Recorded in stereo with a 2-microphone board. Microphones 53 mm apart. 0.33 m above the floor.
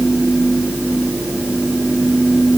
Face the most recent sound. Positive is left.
No sound to turn to.